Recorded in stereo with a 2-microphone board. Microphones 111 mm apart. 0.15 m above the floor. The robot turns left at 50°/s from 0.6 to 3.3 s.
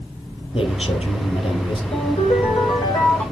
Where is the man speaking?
115° left, 3.5 m; by 1.8 s 55° left, 3.5 m.